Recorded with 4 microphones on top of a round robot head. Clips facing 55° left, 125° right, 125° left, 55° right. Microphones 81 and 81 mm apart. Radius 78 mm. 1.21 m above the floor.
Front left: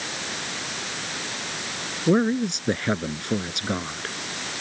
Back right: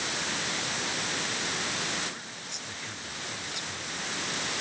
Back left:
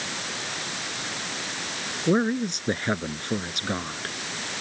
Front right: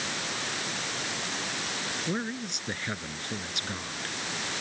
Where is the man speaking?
75° left.